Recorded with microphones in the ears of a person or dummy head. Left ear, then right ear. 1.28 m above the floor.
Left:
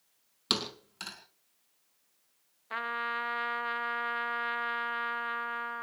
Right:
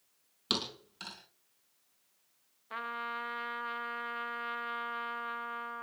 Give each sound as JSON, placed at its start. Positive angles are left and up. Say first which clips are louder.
{"t": 0.5, "sound": "a thud", "louder": "left 2 dB", "side_deg": 15, "distance_m": 4.0}
{"t": 2.7, "sound": "a trumpet", "louder": "left 5 dB", "side_deg": 15, "distance_m": 1.1}